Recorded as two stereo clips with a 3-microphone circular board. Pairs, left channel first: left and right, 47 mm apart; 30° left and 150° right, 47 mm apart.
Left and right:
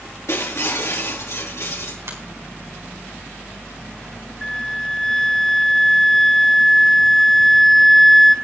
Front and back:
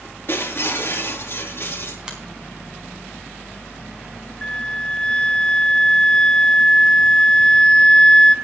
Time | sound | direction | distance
0.3 | breaking glass | 70° left | 4.5 m
2.1 | a finger snap | 80° right | 4 m
4.4 | a flute | 15° left | 0.8 m